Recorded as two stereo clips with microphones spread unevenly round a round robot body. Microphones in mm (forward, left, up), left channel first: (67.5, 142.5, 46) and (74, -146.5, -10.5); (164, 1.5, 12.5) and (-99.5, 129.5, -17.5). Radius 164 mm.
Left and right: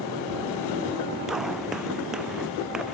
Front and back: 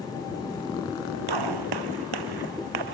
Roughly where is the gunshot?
Behind.